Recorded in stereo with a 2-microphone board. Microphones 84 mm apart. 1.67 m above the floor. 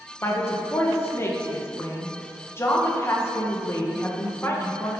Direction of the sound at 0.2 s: 30° left (ahead or behind).